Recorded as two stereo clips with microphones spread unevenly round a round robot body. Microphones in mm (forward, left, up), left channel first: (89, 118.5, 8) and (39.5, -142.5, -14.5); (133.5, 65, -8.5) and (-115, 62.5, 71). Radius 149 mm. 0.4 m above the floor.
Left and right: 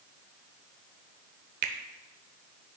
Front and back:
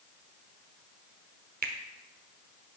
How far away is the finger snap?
About 0.8 m.